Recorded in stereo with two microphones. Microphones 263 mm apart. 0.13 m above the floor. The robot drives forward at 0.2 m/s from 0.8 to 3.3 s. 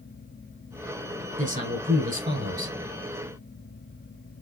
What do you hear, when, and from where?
1.4 s a man speaking: 30° right (ahead or behind), 1.5 m